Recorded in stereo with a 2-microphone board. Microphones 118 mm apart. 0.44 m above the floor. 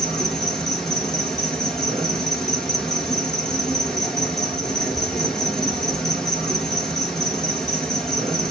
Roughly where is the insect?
Centre.